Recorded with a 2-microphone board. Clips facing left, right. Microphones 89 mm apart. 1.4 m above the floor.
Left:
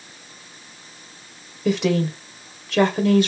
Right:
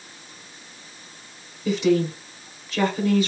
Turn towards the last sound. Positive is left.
turn(degrees=70)  # may be behind; listen again after turning